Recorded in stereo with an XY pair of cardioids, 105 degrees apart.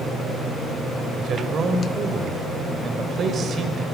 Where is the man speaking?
50° right, 5 m.